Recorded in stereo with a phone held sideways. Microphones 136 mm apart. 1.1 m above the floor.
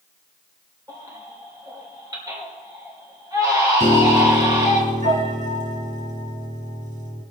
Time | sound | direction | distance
0.9 | a baby crying | 25° right (ahead or behind) | 3 m
3.8 | a piano | 70° right (ahead or behind) | 3 m